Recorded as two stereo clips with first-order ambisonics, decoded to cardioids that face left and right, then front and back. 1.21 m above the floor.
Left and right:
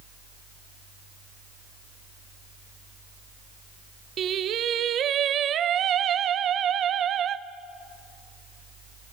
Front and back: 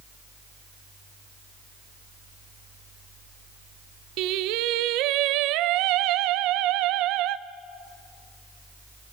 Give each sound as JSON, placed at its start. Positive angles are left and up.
{"t": 4.2, "sound": "singing", "azimuth_deg": -145, "distance_m": 0.6}